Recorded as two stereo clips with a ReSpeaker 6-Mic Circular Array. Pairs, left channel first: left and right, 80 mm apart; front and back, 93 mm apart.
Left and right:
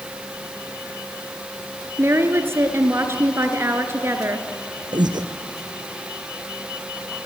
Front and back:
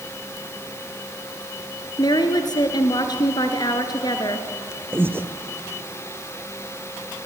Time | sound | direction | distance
2.0 | a woman speaking | 35° right | 2 m
4.9 | breathing | 115° right | 1.7 m